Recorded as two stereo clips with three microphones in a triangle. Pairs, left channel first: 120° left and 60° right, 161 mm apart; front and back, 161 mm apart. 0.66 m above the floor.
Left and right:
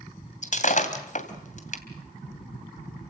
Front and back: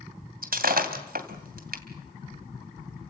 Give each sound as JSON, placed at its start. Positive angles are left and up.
{"t": 0.4, "sound": "breaking glass", "azimuth_deg": 160, "distance_m": 2.5}